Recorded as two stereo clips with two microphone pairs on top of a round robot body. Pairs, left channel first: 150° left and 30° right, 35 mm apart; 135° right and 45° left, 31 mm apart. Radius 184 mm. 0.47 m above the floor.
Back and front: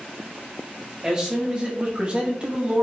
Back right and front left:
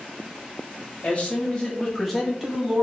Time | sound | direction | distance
1.0 | a man speaking | 85° right | 1.3 m